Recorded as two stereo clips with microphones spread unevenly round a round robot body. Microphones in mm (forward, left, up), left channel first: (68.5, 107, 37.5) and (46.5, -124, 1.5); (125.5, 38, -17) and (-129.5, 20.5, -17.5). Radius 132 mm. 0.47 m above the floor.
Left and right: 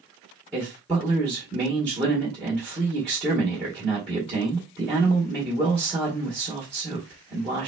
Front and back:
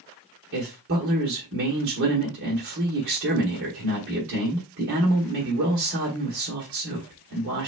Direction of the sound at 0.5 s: 175° left.